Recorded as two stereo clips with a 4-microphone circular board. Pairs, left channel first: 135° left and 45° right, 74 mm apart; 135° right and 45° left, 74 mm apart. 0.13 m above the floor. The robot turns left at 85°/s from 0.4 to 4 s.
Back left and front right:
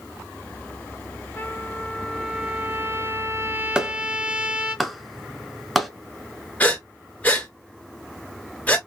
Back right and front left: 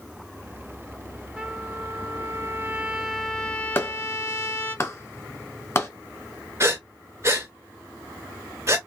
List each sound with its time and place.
1.4 s a trumpet: 115° left, 0.7 m; by 4.8 s 110° right, 0.7 m
3.8 s a clap: 115° right, 1.0 m; by 5.9 s 135° right, 1.0 m
6.6 s breathing: 75° left, 1.4 m